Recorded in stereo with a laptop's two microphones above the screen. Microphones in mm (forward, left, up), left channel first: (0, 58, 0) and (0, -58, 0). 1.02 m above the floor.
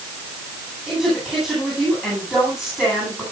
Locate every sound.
0.9 s a woman speaking: 5° right (ahead or behind), 9.5 m